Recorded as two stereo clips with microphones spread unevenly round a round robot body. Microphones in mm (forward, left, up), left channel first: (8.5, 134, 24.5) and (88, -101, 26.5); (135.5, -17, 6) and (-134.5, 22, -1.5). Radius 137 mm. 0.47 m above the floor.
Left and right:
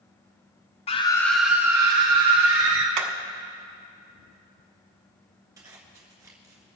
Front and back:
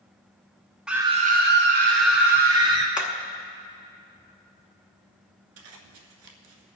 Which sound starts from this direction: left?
A scream, at 0.9 s.